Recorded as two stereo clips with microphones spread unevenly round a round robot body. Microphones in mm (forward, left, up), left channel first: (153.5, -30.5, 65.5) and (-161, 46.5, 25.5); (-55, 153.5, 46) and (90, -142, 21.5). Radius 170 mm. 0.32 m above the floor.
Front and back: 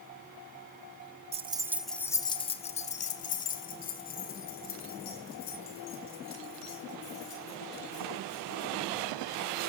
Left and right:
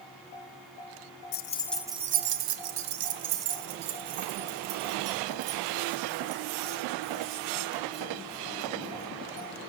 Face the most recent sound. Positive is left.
turn(degrees=-75)